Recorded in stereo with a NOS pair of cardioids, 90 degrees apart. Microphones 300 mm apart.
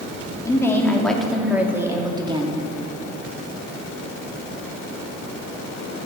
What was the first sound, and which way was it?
A woman speaking, 10° left.